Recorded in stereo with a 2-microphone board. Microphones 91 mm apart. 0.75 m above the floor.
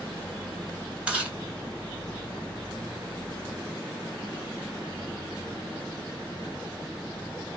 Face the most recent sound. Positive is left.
turn(degrees=-10)  # may be behind; listen again after turning